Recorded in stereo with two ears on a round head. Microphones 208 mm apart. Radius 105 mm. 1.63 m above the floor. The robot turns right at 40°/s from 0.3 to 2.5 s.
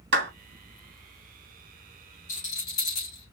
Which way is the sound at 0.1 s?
50° right (ahead or behind).